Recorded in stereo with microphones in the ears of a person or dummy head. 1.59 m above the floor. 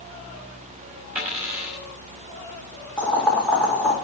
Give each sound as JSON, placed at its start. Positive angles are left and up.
{"t": 1.1, "sound": "a dropped coin", "side_deg": -5, "distance_m": 3.5}
{"t": 3.0, "sound": "boiling", "side_deg": 5, "distance_m": 2.5}